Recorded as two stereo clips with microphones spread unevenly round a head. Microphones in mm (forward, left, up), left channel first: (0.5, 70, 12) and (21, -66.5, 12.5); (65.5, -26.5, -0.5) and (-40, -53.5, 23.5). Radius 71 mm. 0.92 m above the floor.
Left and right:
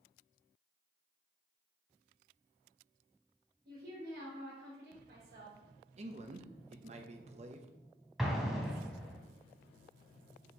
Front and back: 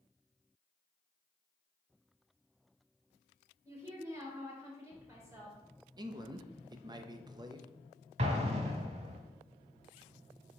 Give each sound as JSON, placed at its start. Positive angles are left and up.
{"t": 3.6, "sound": "a woman speaking", "azimuth_deg": -100, "distance_m": 4.0}
{"t": 6.0, "sound": "a man speaking", "azimuth_deg": -110, "distance_m": 0.9}
{"t": 8.2, "sound": "an explosion", "azimuth_deg": -170, "distance_m": 1.4}